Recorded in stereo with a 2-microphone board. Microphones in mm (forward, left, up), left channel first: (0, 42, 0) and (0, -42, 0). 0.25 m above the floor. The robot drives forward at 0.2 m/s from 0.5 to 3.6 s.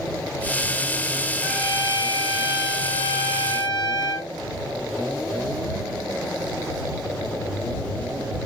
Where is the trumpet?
60° left (ahead or behind), 1.1 m; by 4.3 s 55° left (ahead or behind), 1.1 m.